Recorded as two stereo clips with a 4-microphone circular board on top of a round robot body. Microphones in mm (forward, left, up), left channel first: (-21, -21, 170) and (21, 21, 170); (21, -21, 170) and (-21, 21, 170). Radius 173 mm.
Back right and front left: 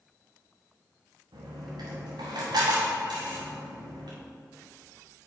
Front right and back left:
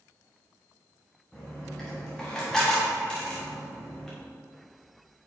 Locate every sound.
1.3 s a dropped coin: 35° left, 1.1 m